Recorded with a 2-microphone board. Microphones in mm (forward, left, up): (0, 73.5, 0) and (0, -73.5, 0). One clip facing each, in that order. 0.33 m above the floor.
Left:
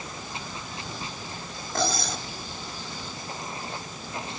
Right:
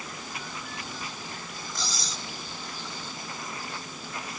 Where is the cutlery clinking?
60° left (ahead or behind).